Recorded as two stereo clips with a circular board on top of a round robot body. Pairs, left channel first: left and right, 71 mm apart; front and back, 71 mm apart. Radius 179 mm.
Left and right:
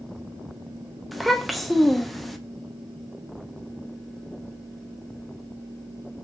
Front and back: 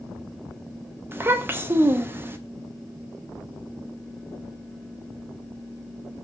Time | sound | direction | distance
1.1 | a child speaking | straight behind | 0.7 m